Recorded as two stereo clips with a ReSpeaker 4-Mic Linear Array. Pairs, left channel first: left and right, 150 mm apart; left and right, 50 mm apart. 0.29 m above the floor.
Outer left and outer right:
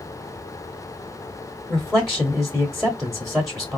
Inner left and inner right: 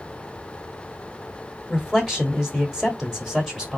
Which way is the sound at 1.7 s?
Centre (ahead or behind).